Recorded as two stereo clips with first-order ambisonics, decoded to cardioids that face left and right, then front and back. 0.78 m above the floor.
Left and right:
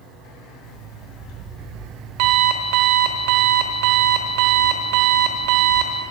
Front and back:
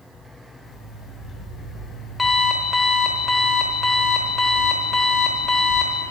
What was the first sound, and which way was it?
An alarm clock, 80° right.